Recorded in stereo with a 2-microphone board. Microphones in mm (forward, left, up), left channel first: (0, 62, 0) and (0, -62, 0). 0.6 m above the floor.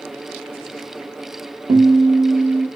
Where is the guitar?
50° right (ahead or behind), 0.7 m.